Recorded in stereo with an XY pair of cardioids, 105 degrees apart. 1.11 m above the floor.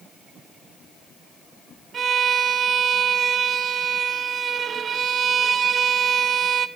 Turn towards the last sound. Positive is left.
turn(degrees=-50)